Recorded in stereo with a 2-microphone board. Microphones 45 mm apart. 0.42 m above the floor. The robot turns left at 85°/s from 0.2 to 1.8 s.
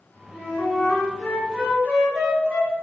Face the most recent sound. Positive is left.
turn(degrees=-40)